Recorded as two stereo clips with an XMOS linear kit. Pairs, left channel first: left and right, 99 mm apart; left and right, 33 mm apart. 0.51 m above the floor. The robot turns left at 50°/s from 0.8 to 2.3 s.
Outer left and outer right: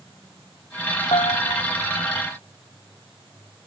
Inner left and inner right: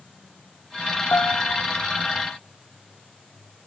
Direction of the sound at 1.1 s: 70° left (ahead or behind).